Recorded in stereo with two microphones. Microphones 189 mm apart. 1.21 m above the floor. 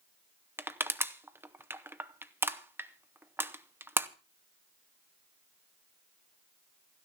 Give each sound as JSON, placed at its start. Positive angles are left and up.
{"t": 0.6, "sound": "crushing", "side_deg": -10, "distance_m": 0.8}